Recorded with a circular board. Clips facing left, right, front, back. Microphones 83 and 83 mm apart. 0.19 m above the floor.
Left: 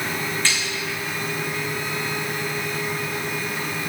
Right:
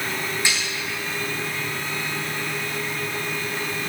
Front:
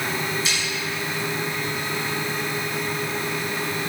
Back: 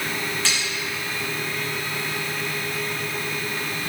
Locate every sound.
0.5 s a snare drum: 165° right, 3.5 m